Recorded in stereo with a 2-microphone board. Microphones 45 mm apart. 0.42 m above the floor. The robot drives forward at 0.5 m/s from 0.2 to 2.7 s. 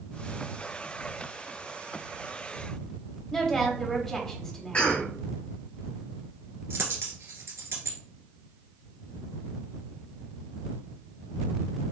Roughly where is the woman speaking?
Centre.